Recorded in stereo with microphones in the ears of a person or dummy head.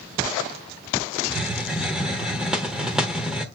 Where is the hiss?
Centre (ahead or behind), 1.0 m.